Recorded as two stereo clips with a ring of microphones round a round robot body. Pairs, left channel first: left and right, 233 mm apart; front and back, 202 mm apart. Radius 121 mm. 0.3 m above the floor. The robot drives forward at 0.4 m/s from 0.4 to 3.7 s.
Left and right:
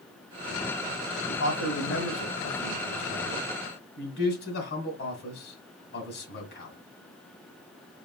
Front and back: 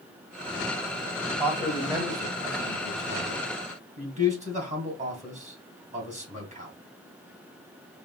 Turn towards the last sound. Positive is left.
turn(degrees=130)